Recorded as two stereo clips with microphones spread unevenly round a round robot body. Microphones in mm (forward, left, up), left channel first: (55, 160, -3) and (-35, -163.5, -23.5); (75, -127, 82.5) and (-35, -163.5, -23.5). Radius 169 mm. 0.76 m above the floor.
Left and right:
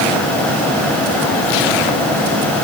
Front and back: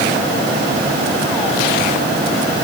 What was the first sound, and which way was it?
Only background noise.